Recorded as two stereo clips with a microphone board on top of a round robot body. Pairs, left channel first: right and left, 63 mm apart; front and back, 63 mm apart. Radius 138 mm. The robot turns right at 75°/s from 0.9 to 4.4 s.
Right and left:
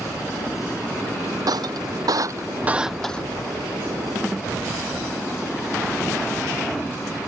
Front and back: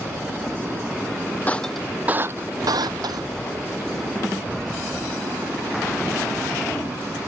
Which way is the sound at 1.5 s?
65° left.